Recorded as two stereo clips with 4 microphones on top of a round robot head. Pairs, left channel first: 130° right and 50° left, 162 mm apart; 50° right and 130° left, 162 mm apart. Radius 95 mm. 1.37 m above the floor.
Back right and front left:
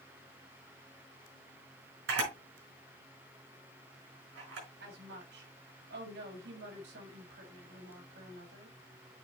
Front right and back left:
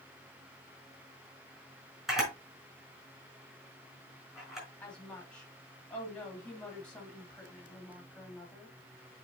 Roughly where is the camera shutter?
Ahead left.